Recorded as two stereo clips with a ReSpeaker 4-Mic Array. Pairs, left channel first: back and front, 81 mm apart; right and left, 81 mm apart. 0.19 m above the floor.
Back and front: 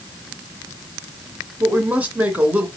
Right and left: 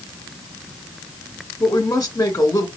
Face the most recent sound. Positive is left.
turn(degrees=-60)